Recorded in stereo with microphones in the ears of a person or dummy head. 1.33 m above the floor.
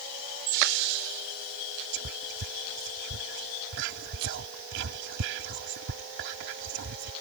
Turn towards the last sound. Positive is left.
turn(degrees=-65)  # may be behind; listen again after turning